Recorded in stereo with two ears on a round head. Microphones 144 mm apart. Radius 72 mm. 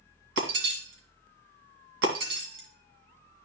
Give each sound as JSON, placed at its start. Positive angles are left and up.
{"t": 0.4, "sound": "breaking glass", "side_deg": -80, "distance_m": 2.0}